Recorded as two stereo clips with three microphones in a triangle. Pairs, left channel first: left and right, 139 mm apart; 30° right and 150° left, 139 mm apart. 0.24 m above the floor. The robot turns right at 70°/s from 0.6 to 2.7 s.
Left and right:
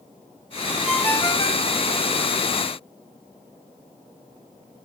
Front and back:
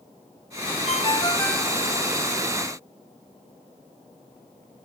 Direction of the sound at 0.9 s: Straight ahead.